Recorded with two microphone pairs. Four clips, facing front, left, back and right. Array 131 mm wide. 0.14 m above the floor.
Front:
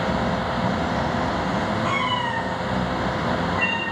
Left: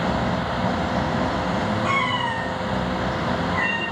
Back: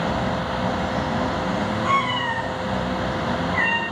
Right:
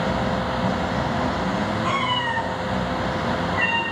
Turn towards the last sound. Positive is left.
turn(degrees=180)